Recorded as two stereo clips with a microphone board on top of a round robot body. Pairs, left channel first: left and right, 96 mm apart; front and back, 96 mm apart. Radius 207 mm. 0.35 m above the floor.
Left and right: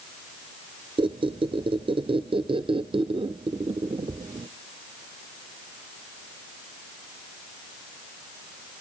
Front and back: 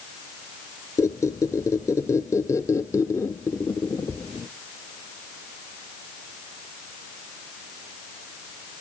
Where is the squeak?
60° right, 0.6 m.